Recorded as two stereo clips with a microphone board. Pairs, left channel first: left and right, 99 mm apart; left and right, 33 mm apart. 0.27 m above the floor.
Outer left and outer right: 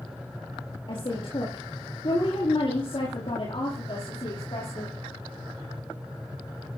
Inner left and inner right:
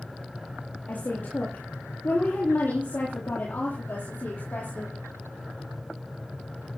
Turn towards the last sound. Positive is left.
turn(degrees=65)  # may be behind; listen again after turning